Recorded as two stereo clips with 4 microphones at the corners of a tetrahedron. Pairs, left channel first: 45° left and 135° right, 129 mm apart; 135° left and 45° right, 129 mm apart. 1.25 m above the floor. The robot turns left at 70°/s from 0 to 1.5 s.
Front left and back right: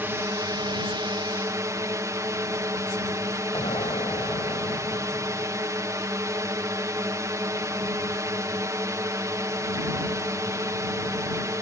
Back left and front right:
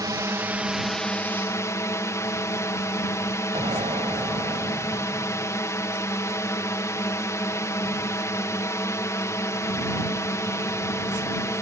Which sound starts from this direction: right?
A drone, at 0.0 s.